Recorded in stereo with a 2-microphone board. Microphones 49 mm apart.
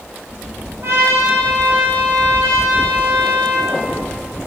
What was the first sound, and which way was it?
A trumpet, 70° right (ahead or behind).